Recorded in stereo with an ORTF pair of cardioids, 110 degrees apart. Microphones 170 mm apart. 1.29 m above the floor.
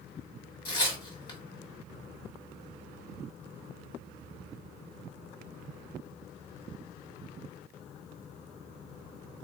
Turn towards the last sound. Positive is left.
turn(degrees=25)